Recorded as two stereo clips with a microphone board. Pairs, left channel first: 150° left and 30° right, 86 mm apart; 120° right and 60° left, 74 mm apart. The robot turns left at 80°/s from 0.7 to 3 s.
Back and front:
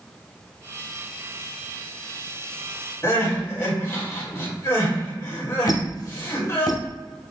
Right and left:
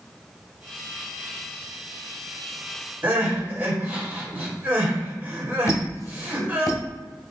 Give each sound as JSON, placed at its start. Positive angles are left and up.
{"t": 3.0, "sound": "crying", "azimuth_deg": 115, "distance_m": 2.0}
{"t": 5.7, "sound": "a squeak", "azimuth_deg": -170, "distance_m": 0.7}